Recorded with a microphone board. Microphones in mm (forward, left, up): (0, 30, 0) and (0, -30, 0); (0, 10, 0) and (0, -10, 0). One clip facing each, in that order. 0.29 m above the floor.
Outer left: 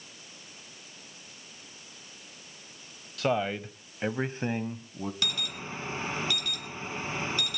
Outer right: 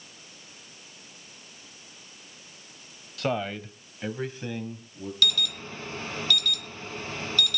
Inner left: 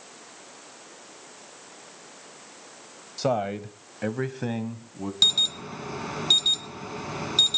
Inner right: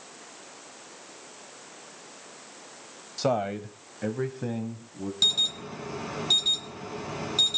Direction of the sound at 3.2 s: Centre (ahead or behind).